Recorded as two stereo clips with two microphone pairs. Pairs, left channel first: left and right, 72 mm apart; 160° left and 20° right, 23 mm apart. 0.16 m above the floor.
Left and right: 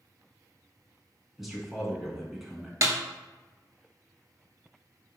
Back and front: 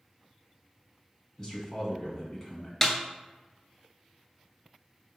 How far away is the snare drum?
About 0.7 m.